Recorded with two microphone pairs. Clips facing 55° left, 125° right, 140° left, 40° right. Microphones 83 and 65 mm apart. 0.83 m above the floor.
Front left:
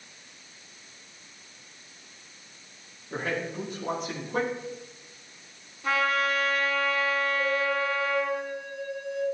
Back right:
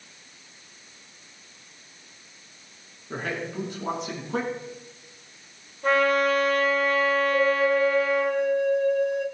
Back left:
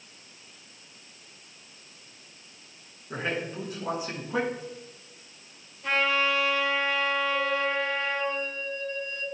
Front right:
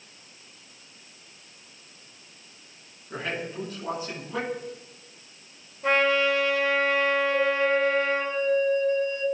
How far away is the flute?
About 1.5 m.